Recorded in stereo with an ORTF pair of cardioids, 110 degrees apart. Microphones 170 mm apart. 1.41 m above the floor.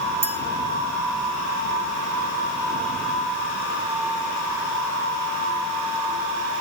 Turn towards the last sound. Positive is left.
turn(degrees=-15)